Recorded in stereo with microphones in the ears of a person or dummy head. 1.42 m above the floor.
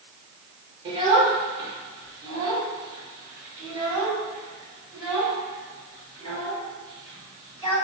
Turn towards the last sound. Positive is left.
turn(degrees=-15)  # may be behind; listen again after turning